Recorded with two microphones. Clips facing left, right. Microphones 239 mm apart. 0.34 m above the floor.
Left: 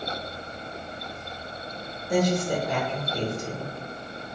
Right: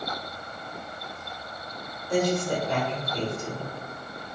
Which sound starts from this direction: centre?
A woman speaking, at 2.1 s.